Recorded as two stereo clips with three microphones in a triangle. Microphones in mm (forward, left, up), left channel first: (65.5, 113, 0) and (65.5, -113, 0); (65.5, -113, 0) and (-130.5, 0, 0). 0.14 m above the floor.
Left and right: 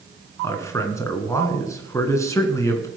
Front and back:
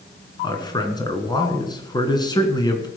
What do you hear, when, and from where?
0.4 s a man speaking: 25° left, 1.6 m